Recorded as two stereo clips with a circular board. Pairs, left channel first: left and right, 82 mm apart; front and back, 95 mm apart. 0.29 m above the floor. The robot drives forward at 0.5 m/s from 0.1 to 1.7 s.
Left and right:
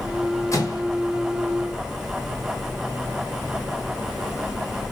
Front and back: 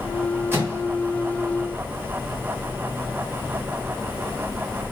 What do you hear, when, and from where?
0.5 s a microwave: 120° left, 1.9 m; by 0.8 s 125° left, 1.9 m